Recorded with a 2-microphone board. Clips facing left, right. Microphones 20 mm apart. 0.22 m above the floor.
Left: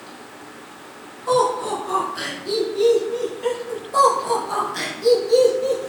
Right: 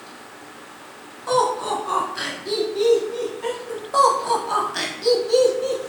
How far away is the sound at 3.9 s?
About 1.0 m.